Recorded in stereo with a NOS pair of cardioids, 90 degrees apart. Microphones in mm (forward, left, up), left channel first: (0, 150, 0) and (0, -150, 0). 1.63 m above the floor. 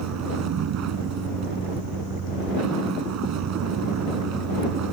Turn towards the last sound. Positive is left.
turn(degrees=-60)